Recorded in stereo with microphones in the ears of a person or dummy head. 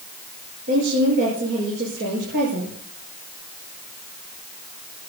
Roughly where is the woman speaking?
Right.